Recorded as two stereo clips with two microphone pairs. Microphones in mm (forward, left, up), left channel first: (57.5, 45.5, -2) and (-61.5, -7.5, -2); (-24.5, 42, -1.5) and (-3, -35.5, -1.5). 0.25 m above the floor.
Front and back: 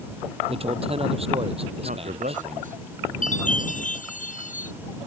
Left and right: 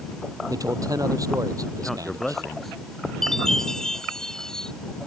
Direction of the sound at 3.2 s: 25° left.